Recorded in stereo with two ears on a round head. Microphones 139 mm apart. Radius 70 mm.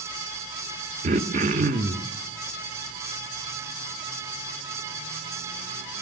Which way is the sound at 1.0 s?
45° right (ahead or behind).